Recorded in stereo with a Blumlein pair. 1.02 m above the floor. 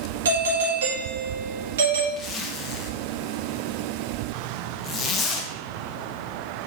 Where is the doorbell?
60° right, 1.9 m.